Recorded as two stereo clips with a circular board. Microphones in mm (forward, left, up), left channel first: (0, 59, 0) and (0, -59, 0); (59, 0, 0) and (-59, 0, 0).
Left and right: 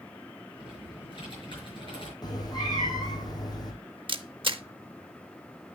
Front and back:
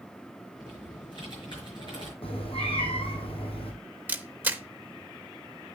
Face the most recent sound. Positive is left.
turn(degrees=-110)